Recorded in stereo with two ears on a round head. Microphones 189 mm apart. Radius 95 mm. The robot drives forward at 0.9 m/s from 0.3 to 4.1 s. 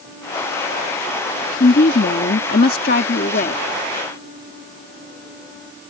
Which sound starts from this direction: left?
A woman speaking, at 1.6 s.